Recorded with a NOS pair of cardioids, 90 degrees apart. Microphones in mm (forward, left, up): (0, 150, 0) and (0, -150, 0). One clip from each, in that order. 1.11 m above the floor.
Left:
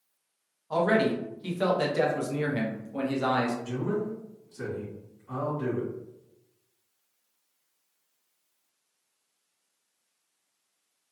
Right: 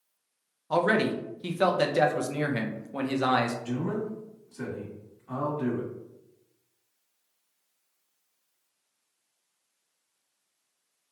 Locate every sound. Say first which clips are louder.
0.7 s a man speaking: even; 25° right, 0.6 m
3.6 s a man speaking: left 1 dB; 25° right, 1.7 m